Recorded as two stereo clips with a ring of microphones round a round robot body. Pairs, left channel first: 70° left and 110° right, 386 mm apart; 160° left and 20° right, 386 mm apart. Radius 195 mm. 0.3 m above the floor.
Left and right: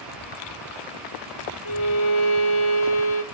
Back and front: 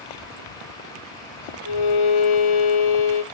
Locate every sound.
1.6 s a violin: 125° left, 1.5 m